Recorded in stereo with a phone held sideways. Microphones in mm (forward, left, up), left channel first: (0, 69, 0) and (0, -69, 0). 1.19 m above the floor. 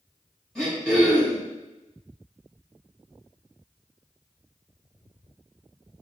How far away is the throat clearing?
About 1.9 m.